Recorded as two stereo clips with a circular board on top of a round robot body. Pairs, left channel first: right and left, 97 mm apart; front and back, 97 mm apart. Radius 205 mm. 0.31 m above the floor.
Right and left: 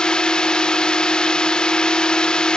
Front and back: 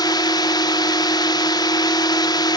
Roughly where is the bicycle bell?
No bicycle bell in this recording.